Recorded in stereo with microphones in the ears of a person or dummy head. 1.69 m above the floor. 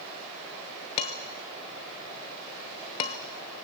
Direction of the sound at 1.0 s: 20° left (ahead or behind).